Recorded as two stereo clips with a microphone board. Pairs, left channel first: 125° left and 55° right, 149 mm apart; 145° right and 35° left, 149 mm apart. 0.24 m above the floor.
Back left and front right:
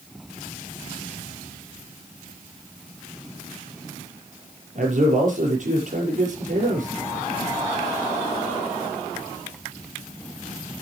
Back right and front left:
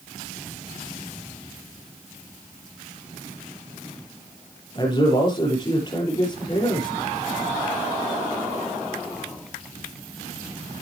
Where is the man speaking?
85° right, 5.5 m.